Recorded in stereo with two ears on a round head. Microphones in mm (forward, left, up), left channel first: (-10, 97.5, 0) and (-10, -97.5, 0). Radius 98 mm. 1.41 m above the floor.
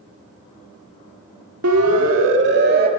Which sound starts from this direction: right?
A siren, at 1.6 s.